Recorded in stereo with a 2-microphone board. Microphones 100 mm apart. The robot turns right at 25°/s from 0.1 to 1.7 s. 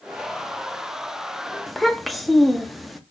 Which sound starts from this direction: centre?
A child speaking, at 1.7 s.